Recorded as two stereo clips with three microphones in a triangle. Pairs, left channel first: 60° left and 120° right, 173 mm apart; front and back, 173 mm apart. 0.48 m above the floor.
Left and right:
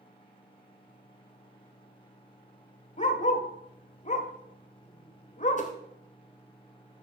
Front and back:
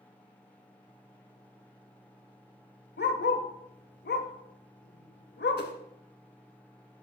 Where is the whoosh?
15° left, 1.1 m.